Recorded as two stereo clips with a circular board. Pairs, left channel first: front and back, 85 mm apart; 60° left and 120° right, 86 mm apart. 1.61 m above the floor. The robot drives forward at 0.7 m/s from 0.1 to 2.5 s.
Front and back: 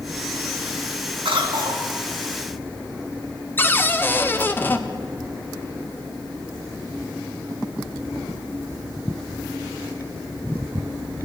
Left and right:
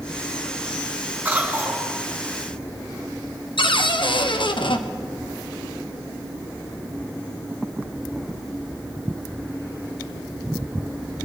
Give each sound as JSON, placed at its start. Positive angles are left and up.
{"t": 1.2, "sound": "a cough", "azimuth_deg": 170, "distance_m": 3.5}
{"t": 3.6, "sound": "a cupboard door", "azimuth_deg": 65, "distance_m": 0.7}